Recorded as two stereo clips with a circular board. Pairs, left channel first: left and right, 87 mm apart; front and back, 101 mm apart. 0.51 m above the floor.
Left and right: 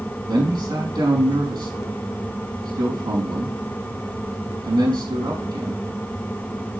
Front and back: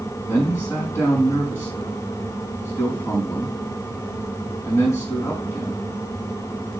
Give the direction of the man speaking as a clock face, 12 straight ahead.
2 o'clock.